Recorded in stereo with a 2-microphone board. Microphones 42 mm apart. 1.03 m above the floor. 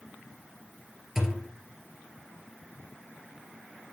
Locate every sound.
1.1 s a thud: 10° right (ahead or behind), 2 m